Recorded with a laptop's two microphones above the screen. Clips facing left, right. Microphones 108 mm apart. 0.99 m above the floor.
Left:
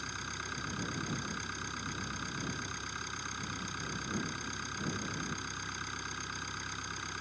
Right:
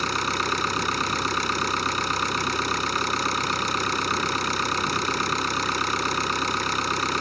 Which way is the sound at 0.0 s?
80° right.